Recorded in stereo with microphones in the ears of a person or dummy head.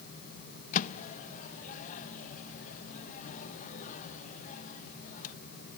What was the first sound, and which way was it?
A microwave, 45° left (ahead or behind).